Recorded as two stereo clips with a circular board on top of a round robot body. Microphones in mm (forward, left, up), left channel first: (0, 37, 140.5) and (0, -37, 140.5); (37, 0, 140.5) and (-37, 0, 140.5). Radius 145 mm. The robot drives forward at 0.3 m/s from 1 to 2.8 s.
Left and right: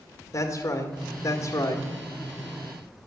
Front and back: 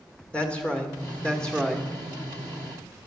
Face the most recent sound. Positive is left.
turn(degrees=95)